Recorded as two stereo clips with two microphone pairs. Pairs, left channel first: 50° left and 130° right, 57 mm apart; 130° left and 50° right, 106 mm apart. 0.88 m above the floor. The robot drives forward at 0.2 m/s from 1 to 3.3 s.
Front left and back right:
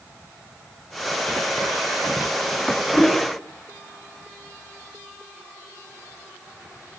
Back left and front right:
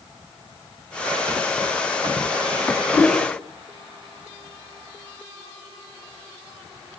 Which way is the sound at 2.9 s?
95° left.